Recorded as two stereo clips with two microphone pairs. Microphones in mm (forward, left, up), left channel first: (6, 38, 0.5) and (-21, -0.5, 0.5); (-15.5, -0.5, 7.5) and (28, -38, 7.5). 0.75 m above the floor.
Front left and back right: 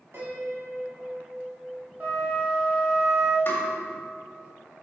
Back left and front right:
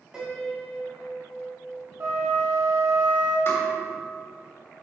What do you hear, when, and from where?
0.1 s a piano: 115° right, 2 m
2.0 s a flute: 65° right, 2.5 m
3.5 s tapping: 95° left, 1.8 m